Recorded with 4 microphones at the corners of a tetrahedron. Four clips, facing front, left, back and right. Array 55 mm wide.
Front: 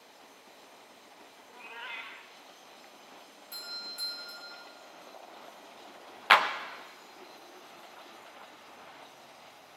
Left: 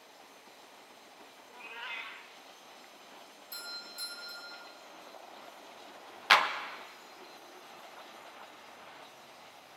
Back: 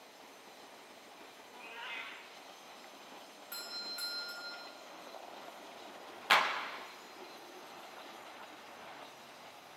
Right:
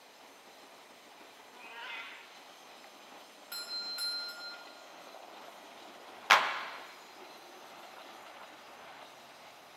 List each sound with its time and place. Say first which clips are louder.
1.5 s a cat meowing: left 3 dB, front 3 dB; 5° left, 1.4 m
3.5 s a doorbell: right 4 dB, front 2 dB; 110° right, 2.5 m
6.3 s a clap: left 1 dB, front 6 dB; 10° right, 0.9 m